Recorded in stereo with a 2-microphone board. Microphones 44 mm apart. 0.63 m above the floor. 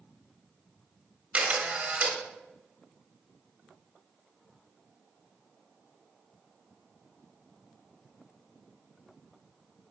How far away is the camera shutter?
About 1.7 m.